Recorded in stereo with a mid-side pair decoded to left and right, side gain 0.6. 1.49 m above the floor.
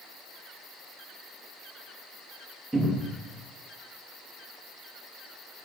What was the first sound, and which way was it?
A cupboard door, 15° right.